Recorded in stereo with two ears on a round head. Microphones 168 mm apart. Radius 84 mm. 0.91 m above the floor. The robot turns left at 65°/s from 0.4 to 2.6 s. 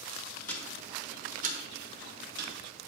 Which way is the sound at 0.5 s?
10° left (ahead or behind).